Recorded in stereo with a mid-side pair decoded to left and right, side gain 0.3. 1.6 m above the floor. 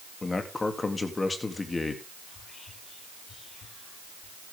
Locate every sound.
0.2 s a man speaking: 40° left, 3.5 m
2.3 s whispering: 65° left, 7.5 m